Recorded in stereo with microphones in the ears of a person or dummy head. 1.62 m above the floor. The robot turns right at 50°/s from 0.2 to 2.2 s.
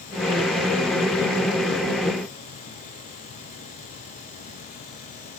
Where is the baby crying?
No baby crying in this recording.